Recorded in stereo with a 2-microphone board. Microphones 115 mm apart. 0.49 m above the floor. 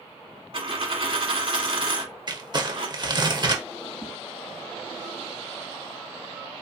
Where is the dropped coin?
55° right (ahead or behind), 0.9 m.